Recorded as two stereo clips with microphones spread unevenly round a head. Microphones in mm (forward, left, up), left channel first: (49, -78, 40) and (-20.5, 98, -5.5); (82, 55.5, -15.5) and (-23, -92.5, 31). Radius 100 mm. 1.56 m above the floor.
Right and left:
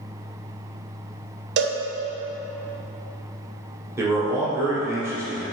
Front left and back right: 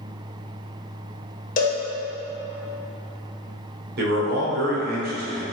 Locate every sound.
1.6 s a cowbell: 95° left, 0.5 m
4.0 s a man speaking: 170° right, 0.9 m